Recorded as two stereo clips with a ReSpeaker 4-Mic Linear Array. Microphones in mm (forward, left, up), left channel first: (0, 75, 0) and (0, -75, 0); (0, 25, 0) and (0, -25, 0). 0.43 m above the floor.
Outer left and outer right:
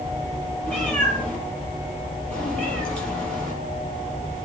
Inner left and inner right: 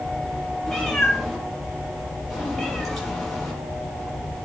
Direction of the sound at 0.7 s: 5° left (ahead or behind).